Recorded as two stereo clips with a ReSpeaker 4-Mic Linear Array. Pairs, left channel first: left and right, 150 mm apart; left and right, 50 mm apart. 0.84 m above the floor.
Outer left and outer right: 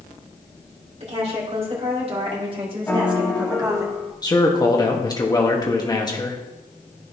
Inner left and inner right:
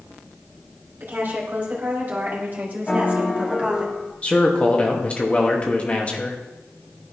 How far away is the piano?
About 1.2 m.